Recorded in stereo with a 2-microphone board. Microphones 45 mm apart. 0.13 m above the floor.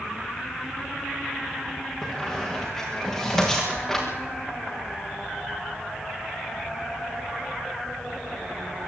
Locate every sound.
2.0 s a squeak: 5° left (ahead or behind), 5.5 m